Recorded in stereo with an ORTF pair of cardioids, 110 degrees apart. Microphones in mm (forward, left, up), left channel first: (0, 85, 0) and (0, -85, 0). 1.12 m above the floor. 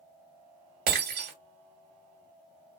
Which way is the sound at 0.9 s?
65° right.